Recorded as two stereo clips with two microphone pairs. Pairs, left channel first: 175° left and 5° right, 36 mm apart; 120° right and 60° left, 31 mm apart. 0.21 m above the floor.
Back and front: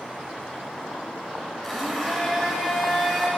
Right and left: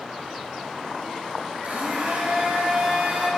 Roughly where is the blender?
Left.